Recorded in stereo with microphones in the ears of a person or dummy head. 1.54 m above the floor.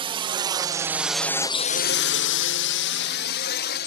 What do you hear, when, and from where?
0.0 s a drone: 20° right (ahead or behind); by 3.9 s 50° left (ahead or behind)